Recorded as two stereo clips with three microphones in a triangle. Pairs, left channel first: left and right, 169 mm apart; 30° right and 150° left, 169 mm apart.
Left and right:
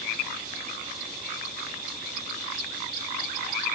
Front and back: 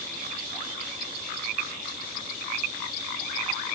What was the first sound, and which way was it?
Only background noise.